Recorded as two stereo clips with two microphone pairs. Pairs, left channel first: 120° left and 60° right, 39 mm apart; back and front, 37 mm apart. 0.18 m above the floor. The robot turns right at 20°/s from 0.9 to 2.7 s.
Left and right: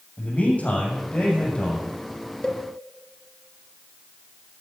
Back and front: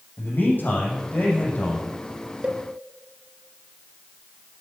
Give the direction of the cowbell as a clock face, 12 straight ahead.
10 o'clock.